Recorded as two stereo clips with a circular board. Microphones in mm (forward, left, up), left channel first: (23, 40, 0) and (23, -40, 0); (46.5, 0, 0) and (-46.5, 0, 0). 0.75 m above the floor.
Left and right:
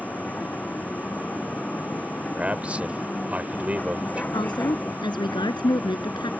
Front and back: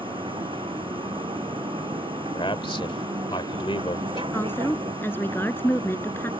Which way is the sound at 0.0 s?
160° left.